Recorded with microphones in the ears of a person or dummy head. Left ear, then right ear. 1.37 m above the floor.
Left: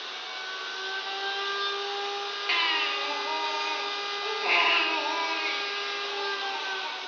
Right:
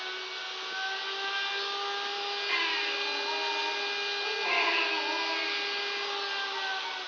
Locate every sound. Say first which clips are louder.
0.0 s a machine running: left 1 dB; 25° right (ahead or behind), 1.2 m
2.5 s a baby crying: left 5 dB; 20° left (ahead or behind), 1.5 m